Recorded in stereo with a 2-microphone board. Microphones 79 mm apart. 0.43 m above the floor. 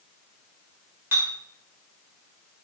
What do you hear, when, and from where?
1.1 s a clink: 30° right (ahead or behind), 1.1 m